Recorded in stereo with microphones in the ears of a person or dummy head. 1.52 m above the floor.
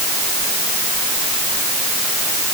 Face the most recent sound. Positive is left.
No sound to turn to.